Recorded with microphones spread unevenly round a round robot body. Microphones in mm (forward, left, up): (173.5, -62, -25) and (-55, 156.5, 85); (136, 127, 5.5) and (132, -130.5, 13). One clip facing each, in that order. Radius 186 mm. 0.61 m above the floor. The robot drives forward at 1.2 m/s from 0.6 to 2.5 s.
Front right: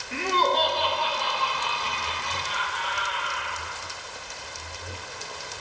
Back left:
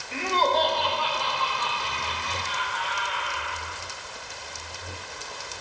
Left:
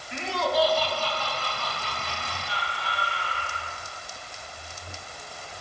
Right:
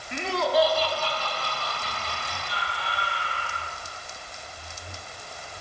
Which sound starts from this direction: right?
Laughter, at 0.1 s.